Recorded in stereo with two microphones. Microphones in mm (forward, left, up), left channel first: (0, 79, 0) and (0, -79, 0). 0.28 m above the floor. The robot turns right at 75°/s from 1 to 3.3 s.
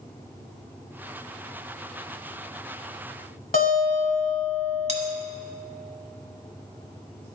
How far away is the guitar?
About 1.4 m.